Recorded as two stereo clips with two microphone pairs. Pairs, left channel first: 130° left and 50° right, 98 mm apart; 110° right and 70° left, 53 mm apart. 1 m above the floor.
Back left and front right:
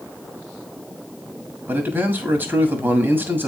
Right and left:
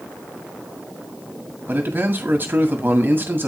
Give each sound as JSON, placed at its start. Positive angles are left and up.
{"t": 1.7, "sound": "a man speaking", "azimuth_deg": 20, "distance_m": 1.7}